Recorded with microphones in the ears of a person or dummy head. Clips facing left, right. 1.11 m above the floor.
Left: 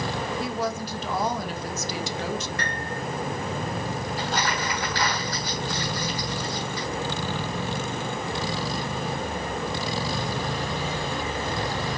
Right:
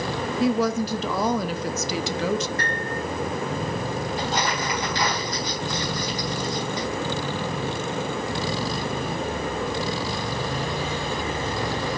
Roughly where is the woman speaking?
Right.